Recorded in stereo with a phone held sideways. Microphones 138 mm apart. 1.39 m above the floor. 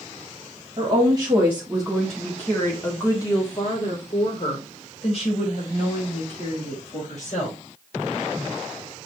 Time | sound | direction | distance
0.8 | a woman speaking | 35° right (ahead or behind) | 1.3 m